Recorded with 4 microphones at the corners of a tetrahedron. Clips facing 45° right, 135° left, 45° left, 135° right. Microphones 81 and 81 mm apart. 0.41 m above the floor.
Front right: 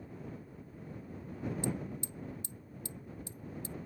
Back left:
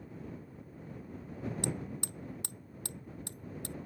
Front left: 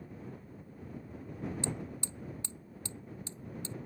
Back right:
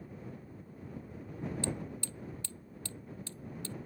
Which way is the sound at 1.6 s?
115° left.